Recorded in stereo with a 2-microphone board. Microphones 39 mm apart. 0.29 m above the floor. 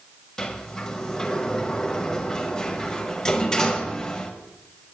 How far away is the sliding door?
About 1.8 m.